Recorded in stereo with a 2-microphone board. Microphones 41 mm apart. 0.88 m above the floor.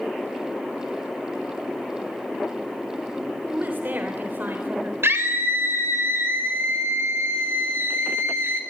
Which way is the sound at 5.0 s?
70° right (ahead or behind).